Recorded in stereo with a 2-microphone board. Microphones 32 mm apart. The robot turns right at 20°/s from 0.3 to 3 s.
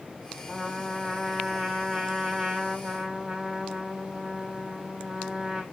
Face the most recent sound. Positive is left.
turn(degrees=-15)  # may be behind; listen again after turning